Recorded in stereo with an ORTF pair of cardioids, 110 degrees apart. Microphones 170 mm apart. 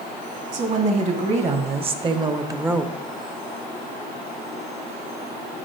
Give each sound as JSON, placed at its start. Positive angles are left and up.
{"t": 0.5, "sound": "a woman speaking", "azimuth_deg": -50, "distance_m": 1.7}